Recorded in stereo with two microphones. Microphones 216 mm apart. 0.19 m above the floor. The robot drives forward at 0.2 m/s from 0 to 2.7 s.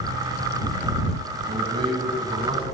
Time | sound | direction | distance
1.5 | a man speaking | 25° right (ahead or behind) | 1.3 m